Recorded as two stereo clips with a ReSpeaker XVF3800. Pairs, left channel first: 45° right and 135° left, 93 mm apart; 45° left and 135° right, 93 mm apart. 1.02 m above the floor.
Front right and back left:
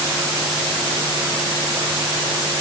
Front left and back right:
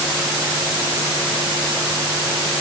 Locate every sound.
Only background noise.